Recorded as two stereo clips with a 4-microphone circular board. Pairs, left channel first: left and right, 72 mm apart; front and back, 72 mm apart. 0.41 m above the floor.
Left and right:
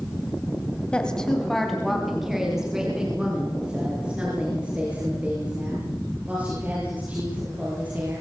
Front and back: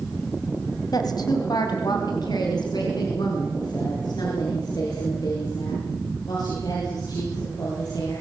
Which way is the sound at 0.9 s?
15° left.